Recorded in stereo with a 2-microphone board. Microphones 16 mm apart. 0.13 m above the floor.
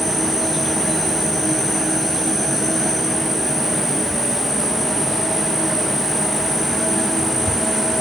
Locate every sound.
0.0 s an insect: 20° right (ahead or behind), 3.5 m